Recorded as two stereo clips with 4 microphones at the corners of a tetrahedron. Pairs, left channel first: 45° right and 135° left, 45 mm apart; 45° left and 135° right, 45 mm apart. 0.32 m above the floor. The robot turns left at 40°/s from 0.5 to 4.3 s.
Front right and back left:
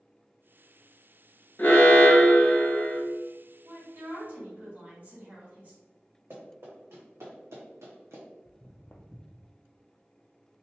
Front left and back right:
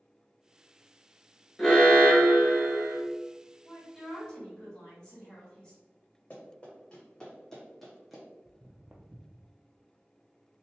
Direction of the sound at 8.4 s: 60° right.